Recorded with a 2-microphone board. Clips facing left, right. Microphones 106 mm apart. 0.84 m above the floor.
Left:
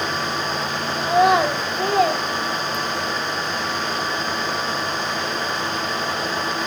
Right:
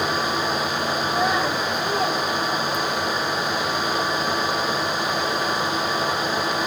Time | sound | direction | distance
1.0 | a child speaking | 70° left (ahead or behind) | 2.5 m